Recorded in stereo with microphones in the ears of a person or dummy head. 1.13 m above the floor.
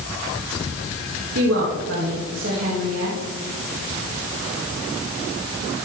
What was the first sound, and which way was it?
A woman speaking, 65° right (ahead or behind).